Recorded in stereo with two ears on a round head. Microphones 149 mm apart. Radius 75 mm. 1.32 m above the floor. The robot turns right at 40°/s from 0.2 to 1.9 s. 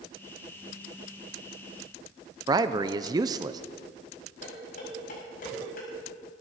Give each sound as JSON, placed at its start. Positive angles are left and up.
{"t": 2.5, "sound": "a man speaking", "side_deg": -25, "distance_m": 0.6}
{"t": 4.4, "sound": "dishes clattering", "side_deg": 50, "distance_m": 6.5}